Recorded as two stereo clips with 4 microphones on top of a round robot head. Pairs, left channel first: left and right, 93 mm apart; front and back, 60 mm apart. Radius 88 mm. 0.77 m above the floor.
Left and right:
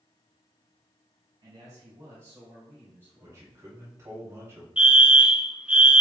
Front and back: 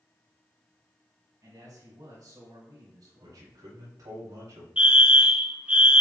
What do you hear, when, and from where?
1.4 s a man speaking: 145° right, 5.5 m; by 3.4 s 165° right, 5.5 m
3.2 s a man speaking: 155° right, 5 m
4.8 s a fire alarm: 145° right, 1.6 m